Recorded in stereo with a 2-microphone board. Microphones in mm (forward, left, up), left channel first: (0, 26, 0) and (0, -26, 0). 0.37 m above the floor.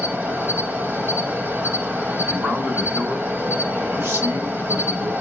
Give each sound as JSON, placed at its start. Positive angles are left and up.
{"t": 0.0, "sound": "an insect", "side_deg": -45, "distance_m": 1.1}
{"t": 2.3, "sound": "a man speaking", "side_deg": -60, "distance_m": 2.5}